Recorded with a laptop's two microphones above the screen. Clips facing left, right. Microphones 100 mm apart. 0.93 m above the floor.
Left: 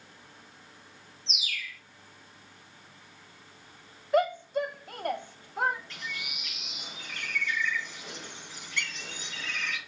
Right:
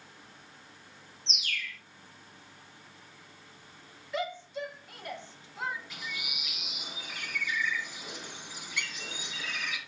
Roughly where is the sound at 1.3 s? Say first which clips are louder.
Right 1 dB; centre.